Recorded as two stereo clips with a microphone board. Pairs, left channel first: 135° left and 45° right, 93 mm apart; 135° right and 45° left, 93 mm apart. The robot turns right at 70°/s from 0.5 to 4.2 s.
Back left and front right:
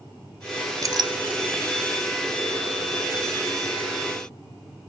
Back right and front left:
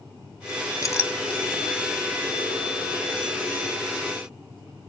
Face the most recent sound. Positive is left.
turn(degrees=145)